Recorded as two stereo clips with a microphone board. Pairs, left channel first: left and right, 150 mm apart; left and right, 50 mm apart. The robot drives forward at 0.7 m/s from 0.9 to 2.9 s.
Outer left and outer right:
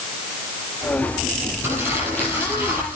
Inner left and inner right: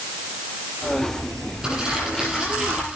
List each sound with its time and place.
1.6 s crumpling: 15° right (ahead or behind), 9 m; by 3.0 s 10° right (ahead or behind), 10 m